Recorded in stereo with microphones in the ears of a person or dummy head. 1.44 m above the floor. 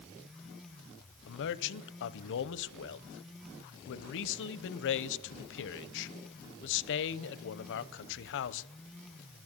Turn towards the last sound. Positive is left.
turn(degrees=60)  # may be behind; listen again after turning